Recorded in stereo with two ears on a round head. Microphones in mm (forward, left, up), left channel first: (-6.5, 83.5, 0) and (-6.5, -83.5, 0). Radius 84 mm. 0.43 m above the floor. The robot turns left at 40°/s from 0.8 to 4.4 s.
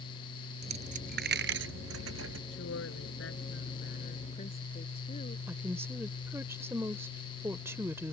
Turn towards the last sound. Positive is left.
turn(degrees=-15)  # may be behind; listen again after turning